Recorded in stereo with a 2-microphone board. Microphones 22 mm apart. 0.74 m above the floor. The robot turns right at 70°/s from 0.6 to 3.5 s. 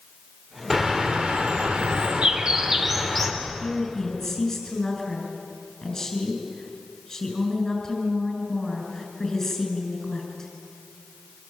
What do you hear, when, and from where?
0.7 s a bird: 160° right, 2.5 m; by 3.3 s 20° left, 2.5 m
3.4 s a woman speaking: 25° left (ahead or behind), 7 m; by 10.5 s 20° left (ahead or behind), 7 m